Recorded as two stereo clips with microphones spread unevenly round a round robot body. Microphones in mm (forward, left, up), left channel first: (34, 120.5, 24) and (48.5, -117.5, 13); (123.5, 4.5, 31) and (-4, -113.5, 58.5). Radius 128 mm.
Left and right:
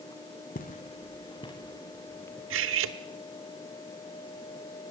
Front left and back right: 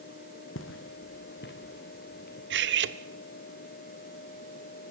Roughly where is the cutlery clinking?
Behind right.